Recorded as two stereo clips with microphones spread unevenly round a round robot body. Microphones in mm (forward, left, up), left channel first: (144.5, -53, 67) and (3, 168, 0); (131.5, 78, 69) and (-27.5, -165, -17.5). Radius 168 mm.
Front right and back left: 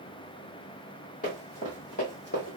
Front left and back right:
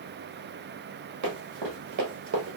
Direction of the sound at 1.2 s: 115° right.